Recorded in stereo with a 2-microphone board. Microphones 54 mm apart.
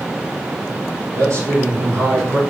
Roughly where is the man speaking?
Right.